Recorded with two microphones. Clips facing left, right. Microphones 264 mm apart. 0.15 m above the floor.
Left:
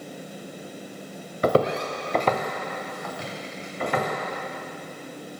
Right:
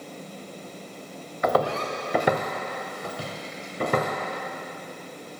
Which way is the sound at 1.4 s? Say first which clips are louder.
Left 3 dB; 35° left (ahead or behind).